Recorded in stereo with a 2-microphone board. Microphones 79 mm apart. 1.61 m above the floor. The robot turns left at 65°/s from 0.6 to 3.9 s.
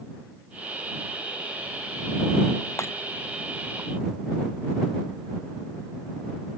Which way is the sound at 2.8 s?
35° left (ahead or behind).